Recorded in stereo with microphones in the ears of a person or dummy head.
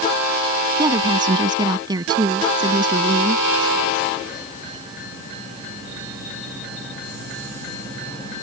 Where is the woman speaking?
25° right (ahead or behind).